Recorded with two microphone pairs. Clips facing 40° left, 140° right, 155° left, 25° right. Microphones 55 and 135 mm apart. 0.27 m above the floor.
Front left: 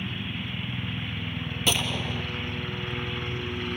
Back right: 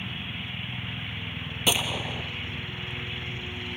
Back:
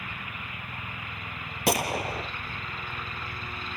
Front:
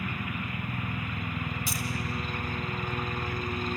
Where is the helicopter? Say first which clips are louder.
Front left 2 dB, front 6 dB; 15° left.